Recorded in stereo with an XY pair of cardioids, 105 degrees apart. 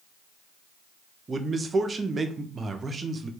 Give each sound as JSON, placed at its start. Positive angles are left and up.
{"t": 1.3, "sound": "a man speaking", "azimuth_deg": -35, "distance_m": 0.5}